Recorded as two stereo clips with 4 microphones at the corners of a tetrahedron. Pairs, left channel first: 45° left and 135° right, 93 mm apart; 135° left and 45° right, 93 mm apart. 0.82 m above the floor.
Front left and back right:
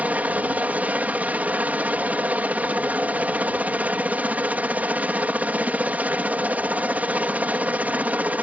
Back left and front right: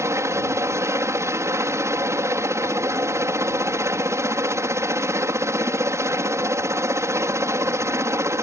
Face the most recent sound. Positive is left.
turn(degrees=-75)